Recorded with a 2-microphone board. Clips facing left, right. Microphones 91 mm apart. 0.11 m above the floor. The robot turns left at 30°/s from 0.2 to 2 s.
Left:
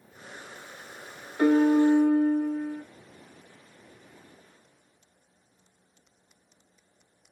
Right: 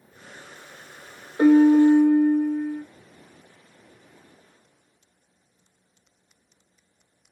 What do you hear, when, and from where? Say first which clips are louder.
1.4 s a piano: right 6 dB; 25° right (ahead or behind), 0.8 m; by 2.8 s 5° right (ahead or behind), 0.8 m